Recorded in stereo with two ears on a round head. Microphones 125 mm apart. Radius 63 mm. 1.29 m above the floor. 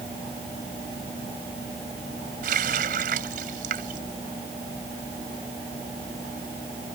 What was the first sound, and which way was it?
A running tap, 65° right (ahead or behind).